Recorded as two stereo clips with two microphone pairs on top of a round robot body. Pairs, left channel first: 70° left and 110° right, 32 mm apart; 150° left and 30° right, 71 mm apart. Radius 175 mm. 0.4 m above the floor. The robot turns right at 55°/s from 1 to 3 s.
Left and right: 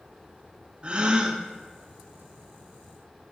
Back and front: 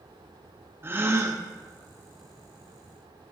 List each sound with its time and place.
0.8 s a gasp: 80° right, 1.4 m; by 1.4 s 55° right, 1.4 m